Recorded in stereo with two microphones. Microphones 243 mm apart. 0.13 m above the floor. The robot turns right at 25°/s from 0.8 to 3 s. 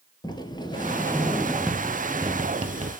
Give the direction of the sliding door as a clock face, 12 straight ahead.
7 o'clock.